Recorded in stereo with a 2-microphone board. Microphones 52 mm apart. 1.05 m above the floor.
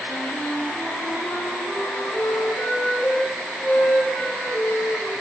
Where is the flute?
30° left (ahead or behind), 3.5 m.